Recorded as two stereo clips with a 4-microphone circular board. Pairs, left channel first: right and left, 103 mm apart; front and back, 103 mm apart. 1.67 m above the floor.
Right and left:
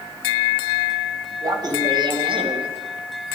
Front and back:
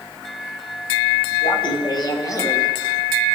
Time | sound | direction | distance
1.4 | laughter | 40° left | 2.5 m